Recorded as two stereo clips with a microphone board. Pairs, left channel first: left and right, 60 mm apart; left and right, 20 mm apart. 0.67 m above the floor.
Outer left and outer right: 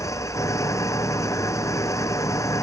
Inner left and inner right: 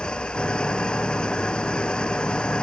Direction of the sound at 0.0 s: 60° left (ahead or behind).